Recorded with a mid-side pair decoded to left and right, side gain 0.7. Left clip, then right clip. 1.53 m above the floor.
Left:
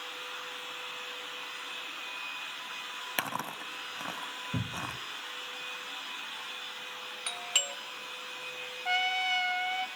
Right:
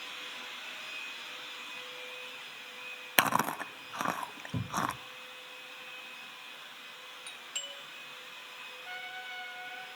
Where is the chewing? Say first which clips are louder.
Right 8 dB; 40° right, 0.7 m.